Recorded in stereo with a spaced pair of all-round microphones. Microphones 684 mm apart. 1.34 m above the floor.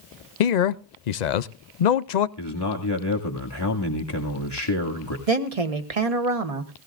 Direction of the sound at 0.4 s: 80° left.